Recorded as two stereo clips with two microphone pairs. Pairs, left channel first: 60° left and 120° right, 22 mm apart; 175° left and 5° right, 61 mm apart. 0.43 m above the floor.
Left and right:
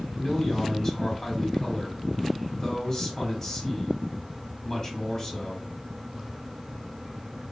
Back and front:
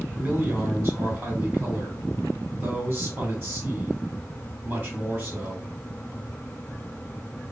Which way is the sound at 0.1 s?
15° left.